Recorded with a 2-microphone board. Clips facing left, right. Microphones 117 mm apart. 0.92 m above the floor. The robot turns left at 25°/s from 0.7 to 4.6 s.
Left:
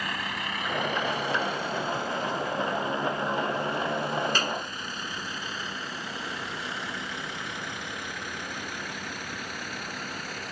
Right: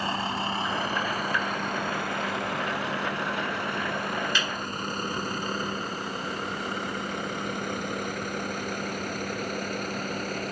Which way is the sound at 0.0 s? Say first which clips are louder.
Right 5 dB; 30° right (ahead or behind).